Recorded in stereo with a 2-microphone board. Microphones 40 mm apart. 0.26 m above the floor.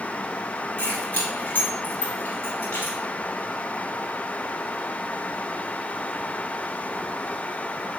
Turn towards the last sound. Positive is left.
turn(degrees=60)  # may be behind; listen again after turning